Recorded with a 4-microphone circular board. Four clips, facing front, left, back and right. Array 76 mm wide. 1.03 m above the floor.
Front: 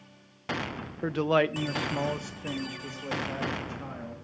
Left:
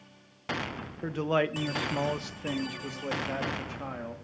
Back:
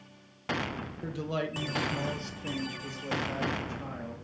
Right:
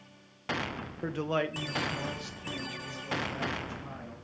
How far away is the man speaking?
About 0.7 m.